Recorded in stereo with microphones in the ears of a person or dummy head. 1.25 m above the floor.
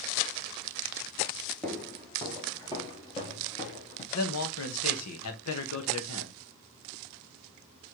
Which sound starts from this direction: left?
A man speaking, at 4.1 s.